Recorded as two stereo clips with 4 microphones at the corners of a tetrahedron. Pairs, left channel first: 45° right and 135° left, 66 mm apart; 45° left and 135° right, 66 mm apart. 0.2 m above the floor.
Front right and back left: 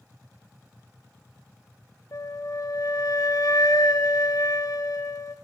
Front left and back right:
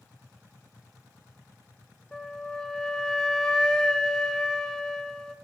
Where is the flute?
35° right, 0.9 m.